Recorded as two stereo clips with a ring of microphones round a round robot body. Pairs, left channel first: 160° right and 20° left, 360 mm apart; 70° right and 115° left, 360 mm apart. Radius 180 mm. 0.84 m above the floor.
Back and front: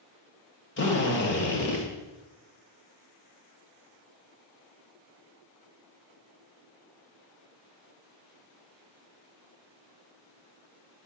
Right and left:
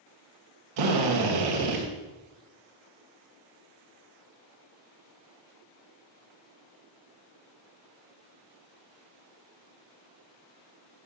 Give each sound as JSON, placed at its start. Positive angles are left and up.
{"t": 0.8, "sound": "a drill", "azimuth_deg": 140, "distance_m": 2.0}